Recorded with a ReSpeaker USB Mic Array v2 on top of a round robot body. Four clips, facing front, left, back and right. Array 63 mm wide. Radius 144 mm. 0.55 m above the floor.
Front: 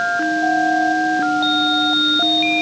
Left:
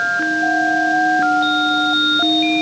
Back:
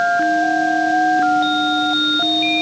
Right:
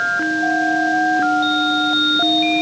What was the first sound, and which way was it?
Only background noise.